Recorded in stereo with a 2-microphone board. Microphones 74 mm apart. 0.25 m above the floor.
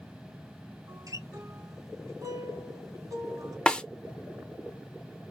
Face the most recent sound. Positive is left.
turn(degrees=10)  # may be behind; listen again after turning